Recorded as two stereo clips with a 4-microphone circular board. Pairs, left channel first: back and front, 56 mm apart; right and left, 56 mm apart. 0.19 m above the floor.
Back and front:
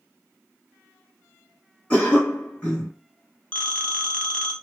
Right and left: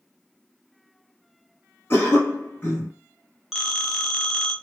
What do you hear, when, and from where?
1.9 s a cough: 115° right, 1.8 m
3.5 s a phone ringing: 160° left, 0.7 m